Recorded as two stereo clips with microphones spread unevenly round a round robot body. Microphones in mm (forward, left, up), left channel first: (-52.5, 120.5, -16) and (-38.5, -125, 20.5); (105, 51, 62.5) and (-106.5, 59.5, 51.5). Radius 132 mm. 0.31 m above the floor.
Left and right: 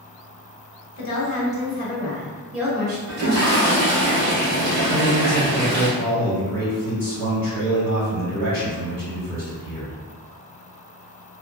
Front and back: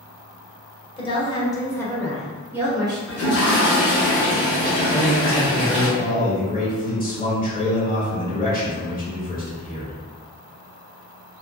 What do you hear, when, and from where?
1.0 s a woman speaking: 60° left, 1.2 m; by 3.0 s 155° right, 0.9 m
3.1 s a toilet flushing: 40° right, 1.4 m
4.9 s a man speaking: 25° left, 1.9 m